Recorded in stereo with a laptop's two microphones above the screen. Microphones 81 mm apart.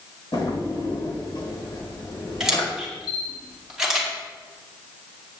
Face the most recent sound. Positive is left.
turn(degrees=-10)  # may be behind; listen again after turning